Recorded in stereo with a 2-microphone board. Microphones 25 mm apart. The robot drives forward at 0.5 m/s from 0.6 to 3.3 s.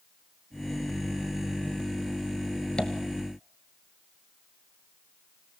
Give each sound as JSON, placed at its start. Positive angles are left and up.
{"t": 2.8, "sound": "tapping", "side_deg": 45, "distance_m": 1.2}